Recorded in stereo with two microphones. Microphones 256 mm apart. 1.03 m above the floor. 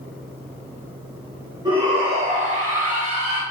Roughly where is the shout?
Centre.